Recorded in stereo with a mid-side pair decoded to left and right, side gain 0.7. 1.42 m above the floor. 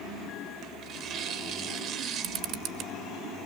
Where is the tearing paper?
50° right, 1.2 m.